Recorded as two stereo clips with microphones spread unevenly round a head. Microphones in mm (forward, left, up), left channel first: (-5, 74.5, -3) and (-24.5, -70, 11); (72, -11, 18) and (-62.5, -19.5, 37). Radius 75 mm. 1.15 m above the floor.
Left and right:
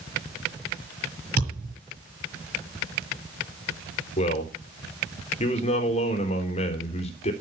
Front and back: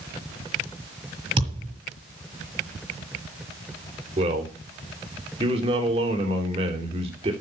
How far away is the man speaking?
About 3 m.